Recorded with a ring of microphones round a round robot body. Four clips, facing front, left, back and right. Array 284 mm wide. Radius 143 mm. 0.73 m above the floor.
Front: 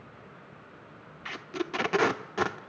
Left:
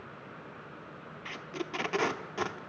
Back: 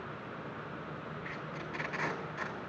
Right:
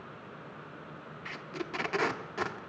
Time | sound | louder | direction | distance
1.2 | tape being pulled | left 1 dB, front 7 dB | 5° left | 0.9 m